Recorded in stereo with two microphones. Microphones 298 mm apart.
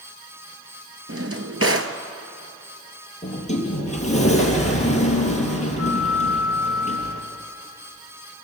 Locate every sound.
1.1 s a drawer: 50° right (ahead or behind), 1.1 m
3.2 s a sliding door: 25° left (ahead or behind), 3 m